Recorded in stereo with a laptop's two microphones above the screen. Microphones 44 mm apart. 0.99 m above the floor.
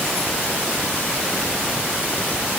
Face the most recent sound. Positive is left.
No sound to turn to.